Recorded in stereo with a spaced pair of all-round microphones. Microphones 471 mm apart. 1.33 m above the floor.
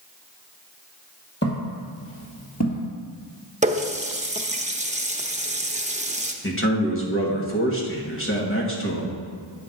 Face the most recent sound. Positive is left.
turn(degrees=25)  # may be behind; listen again after turning